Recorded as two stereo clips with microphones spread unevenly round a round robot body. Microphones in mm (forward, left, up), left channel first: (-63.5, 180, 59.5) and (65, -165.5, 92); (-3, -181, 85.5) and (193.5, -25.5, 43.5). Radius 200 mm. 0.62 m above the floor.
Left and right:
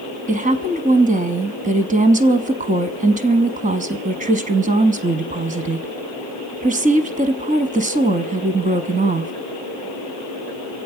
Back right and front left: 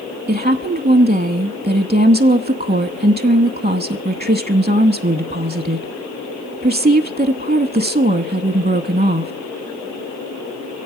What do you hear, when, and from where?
0.3 s a woman speaking: straight ahead, 0.8 m